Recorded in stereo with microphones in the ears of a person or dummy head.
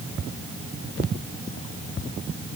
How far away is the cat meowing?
I don't hear a cat meowing.